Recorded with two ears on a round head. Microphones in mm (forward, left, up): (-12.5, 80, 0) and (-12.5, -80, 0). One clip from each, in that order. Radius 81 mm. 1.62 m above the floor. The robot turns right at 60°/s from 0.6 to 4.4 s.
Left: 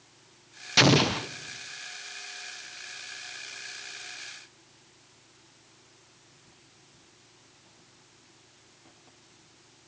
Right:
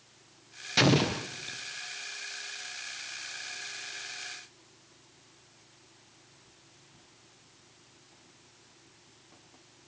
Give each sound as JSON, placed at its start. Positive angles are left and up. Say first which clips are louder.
{"t": 0.8, "sound": "an explosion", "louder": "left 4 dB", "azimuth_deg": 25, "distance_m": 0.6}